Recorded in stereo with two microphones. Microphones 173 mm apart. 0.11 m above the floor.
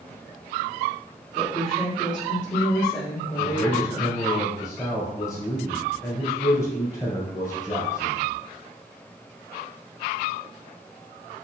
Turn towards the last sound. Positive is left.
turn(degrees=15)  # may be behind; listen again after turning